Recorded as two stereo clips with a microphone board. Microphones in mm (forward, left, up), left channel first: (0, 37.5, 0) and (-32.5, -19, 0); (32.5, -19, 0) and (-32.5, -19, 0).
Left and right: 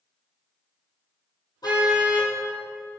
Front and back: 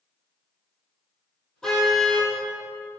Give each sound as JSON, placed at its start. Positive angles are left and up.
{"t": 1.6, "sound": "a car horn", "azimuth_deg": 80, "distance_m": 5.0}